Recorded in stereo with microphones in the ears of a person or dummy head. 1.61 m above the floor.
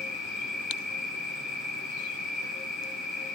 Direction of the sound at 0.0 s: 5° right (ahead or behind).